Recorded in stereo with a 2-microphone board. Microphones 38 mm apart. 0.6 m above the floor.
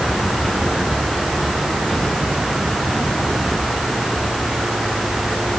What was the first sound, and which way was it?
Only background noise.